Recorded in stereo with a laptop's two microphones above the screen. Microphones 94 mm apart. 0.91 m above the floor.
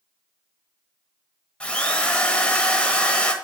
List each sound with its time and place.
1.6 s a drill: 10° left (ahead or behind), 1.3 m